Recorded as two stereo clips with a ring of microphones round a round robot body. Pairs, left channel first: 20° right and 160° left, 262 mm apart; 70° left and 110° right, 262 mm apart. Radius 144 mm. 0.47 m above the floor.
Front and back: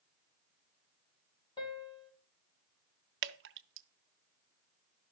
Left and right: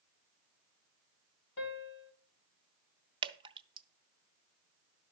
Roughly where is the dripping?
Behind.